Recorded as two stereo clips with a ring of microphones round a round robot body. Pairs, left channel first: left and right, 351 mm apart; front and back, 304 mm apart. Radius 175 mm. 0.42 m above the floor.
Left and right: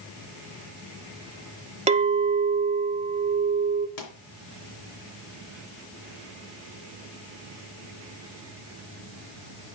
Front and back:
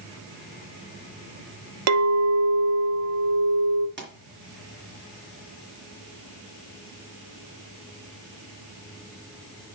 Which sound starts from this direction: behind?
A clink, at 1.9 s.